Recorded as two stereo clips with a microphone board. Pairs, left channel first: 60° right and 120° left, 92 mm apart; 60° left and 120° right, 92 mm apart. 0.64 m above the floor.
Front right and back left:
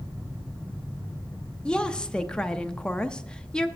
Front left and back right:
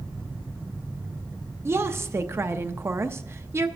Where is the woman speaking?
130° right, 0.5 m.